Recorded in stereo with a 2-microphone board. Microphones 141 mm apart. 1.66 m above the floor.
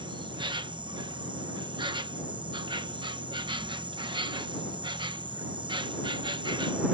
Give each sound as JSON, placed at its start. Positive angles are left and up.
{"t": 0.0, "sound": "an insect", "side_deg": -35}